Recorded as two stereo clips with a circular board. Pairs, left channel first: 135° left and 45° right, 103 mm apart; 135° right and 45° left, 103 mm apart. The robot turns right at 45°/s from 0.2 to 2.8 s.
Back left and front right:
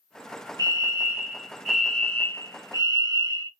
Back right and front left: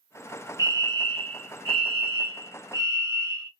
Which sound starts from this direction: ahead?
A fire alarm, at 0.6 s.